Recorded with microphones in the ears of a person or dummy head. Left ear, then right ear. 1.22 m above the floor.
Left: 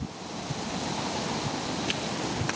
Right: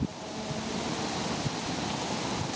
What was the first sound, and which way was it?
Only background noise.